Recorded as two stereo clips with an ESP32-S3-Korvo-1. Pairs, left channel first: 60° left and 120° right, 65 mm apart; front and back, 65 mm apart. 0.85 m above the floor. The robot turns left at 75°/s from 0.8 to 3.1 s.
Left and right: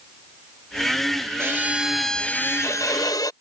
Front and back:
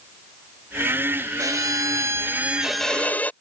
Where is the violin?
165° right; by 3.3 s 65° left.